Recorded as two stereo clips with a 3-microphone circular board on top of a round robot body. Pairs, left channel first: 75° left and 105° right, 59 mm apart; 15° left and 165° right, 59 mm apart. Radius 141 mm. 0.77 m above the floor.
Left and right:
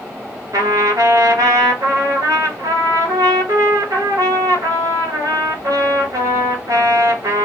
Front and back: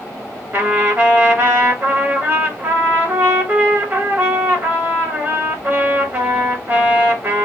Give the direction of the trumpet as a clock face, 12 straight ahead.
4 o'clock.